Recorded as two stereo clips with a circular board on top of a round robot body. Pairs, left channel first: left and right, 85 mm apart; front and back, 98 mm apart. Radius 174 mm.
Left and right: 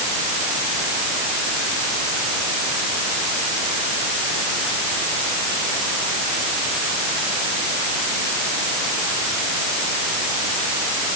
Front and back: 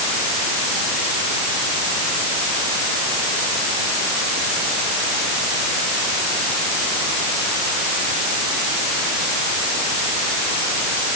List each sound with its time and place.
Only background noise.